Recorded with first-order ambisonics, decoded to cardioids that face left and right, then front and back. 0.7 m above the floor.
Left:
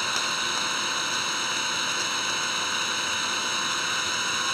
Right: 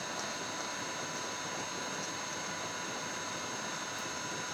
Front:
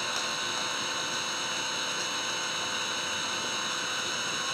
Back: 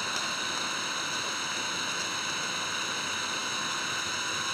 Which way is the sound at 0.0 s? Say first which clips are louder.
Left 12 dB, even; 90° left.